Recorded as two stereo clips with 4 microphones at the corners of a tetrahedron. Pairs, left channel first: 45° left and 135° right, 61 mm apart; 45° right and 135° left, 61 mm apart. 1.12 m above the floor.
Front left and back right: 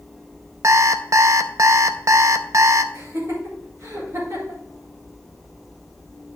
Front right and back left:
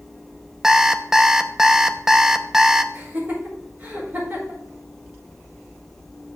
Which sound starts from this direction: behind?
Laughter, at 2.9 s.